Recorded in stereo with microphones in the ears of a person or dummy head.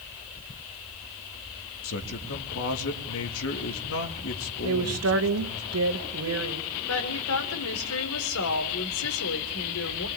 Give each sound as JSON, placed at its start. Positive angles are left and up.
{"t": 1.8, "sound": "a man speaking", "side_deg": 70, "distance_m": 2.5}
{"t": 4.6, "sound": "a woman speaking", "side_deg": -80, "distance_m": 2.5}
{"t": 6.9, "sound": "a woman speaking", "side_deg": 80, "distance_m": 3.5}